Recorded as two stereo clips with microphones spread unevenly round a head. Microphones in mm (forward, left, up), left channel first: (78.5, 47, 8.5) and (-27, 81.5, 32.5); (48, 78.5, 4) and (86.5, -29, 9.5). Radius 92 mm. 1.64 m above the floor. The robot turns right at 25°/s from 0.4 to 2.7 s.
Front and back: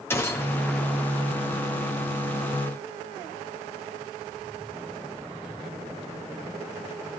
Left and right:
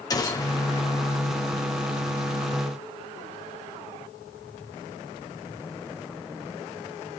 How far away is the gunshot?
About 4.5 m.